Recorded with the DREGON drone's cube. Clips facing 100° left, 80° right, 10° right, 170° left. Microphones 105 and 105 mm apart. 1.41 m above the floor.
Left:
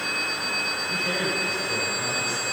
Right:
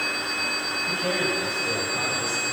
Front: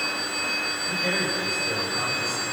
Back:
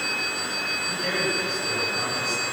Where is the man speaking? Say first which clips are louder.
Right 3 dB, even; 95° right, 9.5 m.